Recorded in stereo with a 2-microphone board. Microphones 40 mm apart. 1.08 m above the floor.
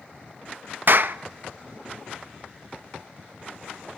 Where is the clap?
50° right (ahead or behind), 0.7 m.